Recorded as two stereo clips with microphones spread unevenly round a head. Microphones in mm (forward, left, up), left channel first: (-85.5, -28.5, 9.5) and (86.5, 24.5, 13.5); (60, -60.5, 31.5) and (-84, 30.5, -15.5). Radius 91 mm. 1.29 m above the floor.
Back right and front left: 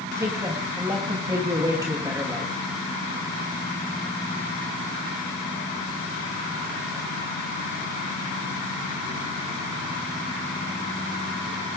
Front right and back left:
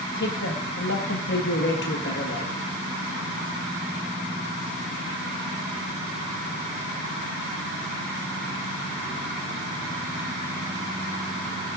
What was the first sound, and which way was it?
A man speaking, 55° right.